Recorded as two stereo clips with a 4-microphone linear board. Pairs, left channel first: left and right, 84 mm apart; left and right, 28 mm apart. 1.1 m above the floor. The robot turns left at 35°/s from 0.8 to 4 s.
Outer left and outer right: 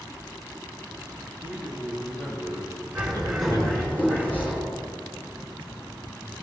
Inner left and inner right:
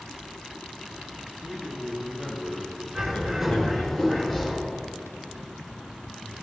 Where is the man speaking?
160° right, 5 m; by 3.9 s 110° left, 5 m.